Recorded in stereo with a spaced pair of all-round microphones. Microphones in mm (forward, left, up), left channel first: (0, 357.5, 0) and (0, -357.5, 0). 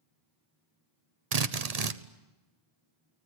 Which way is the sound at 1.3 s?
60° right (ahead or behind).